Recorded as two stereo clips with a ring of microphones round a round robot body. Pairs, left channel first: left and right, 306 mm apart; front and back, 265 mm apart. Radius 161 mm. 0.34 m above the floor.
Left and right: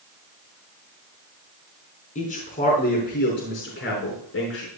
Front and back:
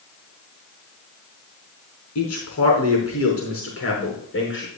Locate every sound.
2.1 s a man speaking: 25° left, 4 m; by 4.7 s 45° left, 5 m